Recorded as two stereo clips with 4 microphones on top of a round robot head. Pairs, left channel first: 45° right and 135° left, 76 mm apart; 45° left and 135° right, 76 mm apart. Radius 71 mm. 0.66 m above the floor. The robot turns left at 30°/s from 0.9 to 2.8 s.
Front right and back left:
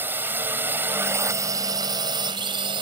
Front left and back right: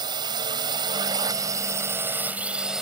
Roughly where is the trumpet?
I don't hear a trumpet.